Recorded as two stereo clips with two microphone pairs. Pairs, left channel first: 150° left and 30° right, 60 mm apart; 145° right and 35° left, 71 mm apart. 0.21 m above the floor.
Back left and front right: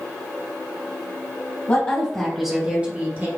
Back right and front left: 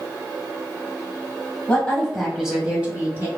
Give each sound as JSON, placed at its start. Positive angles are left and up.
{"t": 1.7, "sound": "a woman speaking", "azimuth_deg": 160, "distance_m": 1.4}